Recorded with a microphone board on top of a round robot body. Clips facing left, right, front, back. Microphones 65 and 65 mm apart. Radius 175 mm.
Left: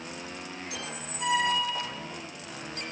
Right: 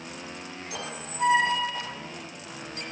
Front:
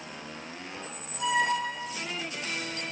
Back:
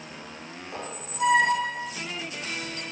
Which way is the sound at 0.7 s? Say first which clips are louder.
Right 3 dB, back 5 dB; 145° right.